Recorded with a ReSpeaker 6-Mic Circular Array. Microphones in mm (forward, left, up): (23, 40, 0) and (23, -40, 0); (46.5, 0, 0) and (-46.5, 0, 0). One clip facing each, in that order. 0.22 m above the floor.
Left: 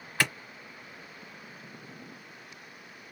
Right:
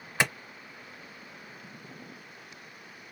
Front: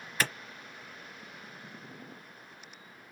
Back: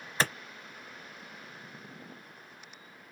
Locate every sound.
0.2 s a clap: 140° right, 0.9 m